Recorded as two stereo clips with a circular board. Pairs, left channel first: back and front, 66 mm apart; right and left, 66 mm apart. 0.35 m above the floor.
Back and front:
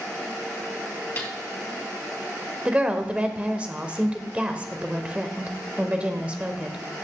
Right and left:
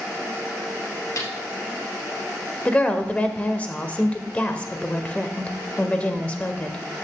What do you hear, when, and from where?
1.2 s a snare drum: 130° right, 2.5 m
2.6 s a woman speaking: 45° right, 1.0 m